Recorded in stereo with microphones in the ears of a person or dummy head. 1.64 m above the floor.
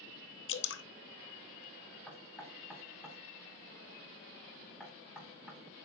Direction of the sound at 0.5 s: 65° left (ahead or behind).